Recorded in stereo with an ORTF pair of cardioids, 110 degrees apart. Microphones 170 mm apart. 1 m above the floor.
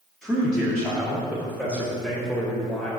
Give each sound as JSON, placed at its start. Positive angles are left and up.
{"t": 0.2, "sound": "a man speaking", "azimuth_deg": 5, "distance_m": 2.0}